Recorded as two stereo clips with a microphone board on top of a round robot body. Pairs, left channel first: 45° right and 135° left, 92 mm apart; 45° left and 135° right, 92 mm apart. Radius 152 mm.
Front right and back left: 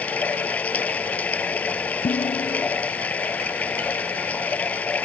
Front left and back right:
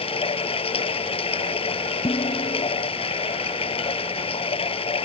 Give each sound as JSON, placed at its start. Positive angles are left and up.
{"t": 0.0, "sound": "running water", "azimuth_deg": 30}
{"t": 2.0, "sound": "dishes clattering", "azimuth_deg": -5}